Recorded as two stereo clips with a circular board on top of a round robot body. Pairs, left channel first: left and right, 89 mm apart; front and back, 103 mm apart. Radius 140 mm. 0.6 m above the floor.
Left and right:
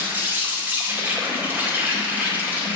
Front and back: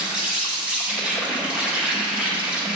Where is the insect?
115° right, 1.9 m.